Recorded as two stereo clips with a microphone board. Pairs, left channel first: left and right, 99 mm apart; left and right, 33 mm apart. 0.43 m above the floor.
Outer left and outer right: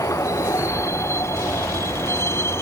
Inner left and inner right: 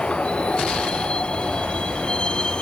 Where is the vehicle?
30° left (ahead or behind); by 2.6 s 25° left (ahead or behind).